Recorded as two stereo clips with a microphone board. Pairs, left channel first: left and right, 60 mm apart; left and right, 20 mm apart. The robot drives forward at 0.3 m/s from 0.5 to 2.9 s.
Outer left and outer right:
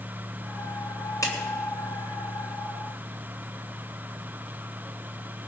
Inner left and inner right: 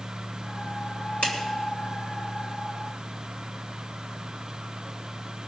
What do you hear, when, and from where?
1.2 s a clap: 75° left (ahead or behind), 3 m